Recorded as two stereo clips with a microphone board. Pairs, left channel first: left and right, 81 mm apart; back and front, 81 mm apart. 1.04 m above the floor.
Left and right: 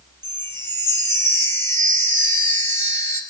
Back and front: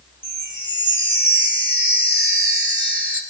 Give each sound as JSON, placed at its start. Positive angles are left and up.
{"t": 0.2, "sound": "a chime", "azimuth_deg": 30, "distance_m": 2.5}